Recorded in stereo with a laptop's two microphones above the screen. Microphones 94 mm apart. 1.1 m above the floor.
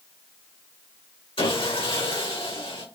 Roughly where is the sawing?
Left.